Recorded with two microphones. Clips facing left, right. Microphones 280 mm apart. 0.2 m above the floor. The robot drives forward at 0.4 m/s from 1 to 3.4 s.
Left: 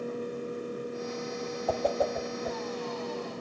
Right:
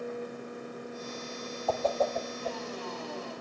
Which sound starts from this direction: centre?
A whoosh, at 1.7 s.